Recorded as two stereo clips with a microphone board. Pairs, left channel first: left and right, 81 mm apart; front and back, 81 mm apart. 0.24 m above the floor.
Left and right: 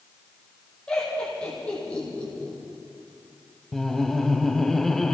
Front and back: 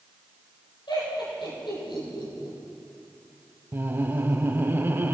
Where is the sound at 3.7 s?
170° left, 1.3 m.